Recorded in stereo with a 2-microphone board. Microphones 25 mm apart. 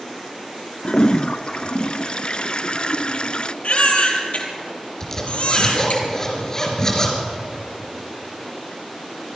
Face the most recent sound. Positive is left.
turn(degrees=25)  # may be behind; listen again after turning